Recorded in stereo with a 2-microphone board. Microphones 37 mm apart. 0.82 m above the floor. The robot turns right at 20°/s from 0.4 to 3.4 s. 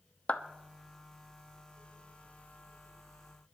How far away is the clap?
About 1.0 m.